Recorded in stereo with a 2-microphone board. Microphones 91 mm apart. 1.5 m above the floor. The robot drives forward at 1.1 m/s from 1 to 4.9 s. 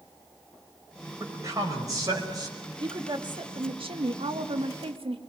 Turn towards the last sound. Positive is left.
turn(degrees=-75)  # may be behind; listen again after turning